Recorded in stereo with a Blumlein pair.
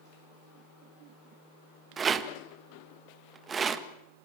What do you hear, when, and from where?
2.0 s a rattle: 20° right, 1.5 m